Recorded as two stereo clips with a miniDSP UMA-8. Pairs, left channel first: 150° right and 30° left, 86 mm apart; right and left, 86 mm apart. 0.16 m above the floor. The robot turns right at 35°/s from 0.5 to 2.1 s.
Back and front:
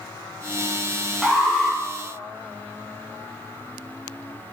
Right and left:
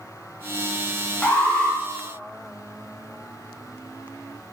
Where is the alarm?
50° right, 0.7 m; by 1.8 s 30° right, 0.7 m.